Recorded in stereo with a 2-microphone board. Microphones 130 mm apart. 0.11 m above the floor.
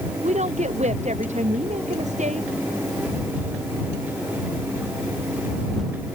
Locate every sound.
0.2 s a woman speaking: 60° right (ahead or behind)